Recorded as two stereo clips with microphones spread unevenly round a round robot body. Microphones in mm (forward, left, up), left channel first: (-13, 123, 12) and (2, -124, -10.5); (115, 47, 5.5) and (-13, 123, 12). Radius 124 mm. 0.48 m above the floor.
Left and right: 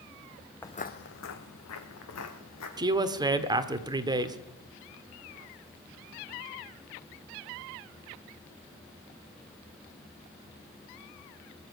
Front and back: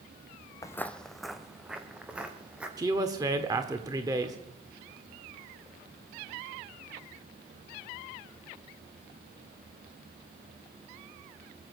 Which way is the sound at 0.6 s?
25° left.